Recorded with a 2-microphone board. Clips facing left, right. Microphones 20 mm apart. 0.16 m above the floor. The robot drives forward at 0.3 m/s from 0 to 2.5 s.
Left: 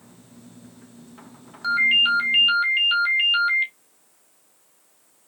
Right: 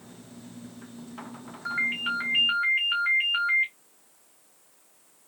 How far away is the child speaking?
No child speaking in this recording.